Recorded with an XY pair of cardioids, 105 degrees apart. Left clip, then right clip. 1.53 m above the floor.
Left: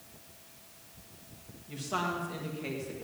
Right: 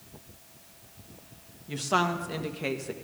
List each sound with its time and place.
1.7 s a woman speaking: 55° right, 1.5 m